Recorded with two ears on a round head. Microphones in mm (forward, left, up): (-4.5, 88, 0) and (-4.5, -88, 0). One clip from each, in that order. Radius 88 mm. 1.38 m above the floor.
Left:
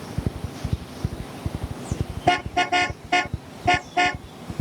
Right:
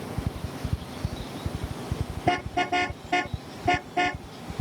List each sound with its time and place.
2.3 s a car horn: 30° left (ahead or behind)